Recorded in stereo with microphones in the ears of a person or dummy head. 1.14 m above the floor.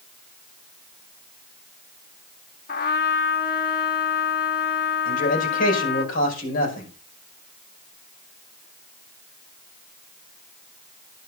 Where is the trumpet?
60° left (ahead or behind), 1.5 m.